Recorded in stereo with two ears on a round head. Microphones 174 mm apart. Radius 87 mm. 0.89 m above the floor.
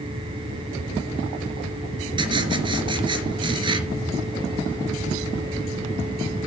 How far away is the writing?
About 2.5 m.